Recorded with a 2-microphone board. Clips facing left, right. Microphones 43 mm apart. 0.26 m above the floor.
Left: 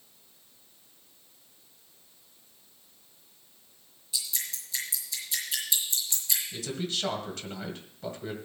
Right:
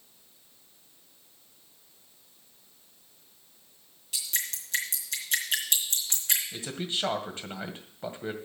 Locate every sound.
4.1 s dripping: 65° right (ahead or behind), 4 m
6.5 s a man speaking: 25° right (ahead or behind), 1.7 m